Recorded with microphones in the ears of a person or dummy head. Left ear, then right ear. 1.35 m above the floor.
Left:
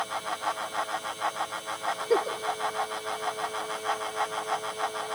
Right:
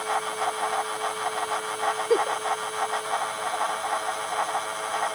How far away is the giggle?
About 0.6 m.